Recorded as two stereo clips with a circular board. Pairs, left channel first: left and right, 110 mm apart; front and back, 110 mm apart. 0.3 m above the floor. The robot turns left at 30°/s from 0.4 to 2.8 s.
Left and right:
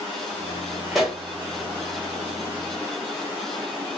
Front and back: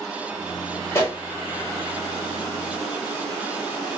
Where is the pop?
5° right, 0.9 m; by 1.2 s 10° right, 0.9 m.